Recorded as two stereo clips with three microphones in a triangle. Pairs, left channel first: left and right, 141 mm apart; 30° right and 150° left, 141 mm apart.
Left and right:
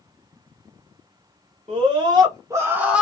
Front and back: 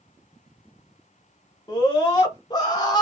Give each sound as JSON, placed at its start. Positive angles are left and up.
{"t": 1.7, "sound": "a scream", "azimuth_deg": -80, "distance_m": 1.1}